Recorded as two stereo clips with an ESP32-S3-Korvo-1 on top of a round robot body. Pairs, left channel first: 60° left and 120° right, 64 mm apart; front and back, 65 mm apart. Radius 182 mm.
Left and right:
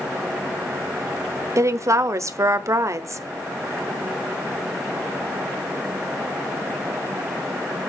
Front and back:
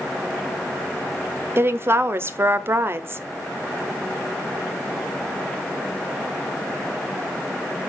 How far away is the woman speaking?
About 1.4 m.